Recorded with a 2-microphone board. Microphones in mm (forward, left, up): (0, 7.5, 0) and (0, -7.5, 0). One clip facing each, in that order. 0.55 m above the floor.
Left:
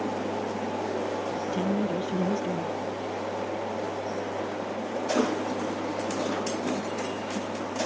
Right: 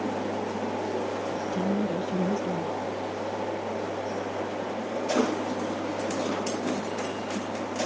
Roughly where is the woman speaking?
Centre.